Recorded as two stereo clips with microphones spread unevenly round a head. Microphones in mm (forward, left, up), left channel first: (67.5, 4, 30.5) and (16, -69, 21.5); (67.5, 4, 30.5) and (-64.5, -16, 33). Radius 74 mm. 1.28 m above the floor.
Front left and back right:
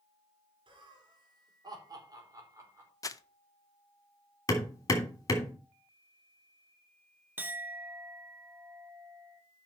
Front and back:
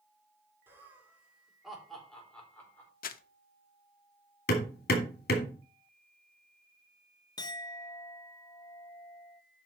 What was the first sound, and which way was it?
Laughter, 95° right.